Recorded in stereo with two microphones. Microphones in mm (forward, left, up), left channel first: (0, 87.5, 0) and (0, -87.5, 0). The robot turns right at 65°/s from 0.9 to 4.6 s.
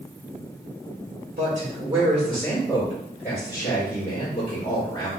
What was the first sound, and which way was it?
A man speaking, 70° right.